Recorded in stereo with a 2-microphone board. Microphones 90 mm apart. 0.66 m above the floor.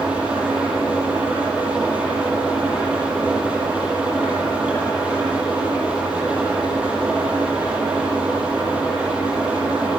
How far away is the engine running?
About 7.5 m.